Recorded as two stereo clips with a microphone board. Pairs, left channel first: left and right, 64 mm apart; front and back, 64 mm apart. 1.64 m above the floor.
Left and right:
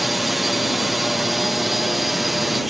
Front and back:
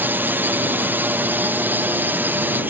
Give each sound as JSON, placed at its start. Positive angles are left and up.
{"t": 0.0, "sound": "a drone", "azimuth_deg": -175}